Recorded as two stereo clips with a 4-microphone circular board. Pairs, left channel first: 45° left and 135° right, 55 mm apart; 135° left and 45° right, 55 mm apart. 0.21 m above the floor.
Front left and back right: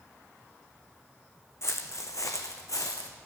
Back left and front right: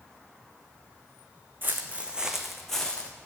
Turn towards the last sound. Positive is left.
turn(degrees=65)